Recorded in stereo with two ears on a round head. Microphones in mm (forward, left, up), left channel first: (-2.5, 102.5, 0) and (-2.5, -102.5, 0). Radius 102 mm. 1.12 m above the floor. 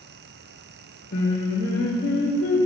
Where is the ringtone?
I don't hear a ringtone.